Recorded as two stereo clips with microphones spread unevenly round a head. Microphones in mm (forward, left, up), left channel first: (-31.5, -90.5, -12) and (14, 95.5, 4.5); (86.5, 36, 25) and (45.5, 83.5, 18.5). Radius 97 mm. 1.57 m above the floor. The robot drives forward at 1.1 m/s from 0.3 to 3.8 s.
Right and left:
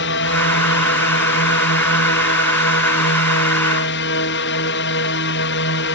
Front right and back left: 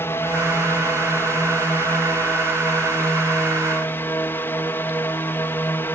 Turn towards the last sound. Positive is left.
turn(degrees=-115)